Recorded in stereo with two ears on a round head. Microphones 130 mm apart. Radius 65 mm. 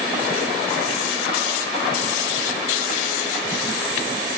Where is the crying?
I don't hear crying.